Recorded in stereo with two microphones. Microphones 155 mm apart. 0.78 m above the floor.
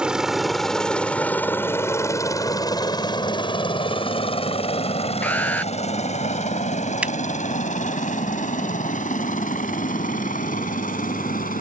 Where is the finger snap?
10° right (ahead or behind).